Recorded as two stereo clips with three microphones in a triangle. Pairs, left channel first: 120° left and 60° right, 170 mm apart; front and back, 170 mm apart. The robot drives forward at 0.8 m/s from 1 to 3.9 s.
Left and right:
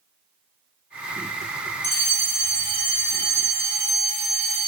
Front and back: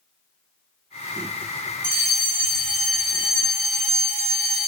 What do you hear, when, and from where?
1.8 s a fire alarm: 165° right, 4 m; by 4.7 s 170° right, 5.5 m